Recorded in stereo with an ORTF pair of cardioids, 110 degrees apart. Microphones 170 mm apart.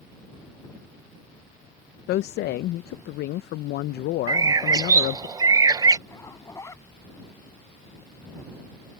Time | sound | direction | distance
2.1 | a woman speaking | 65° left | ?
4.3 | a bird | 20° right | ?
6.1 | a zipper | 15° left | ?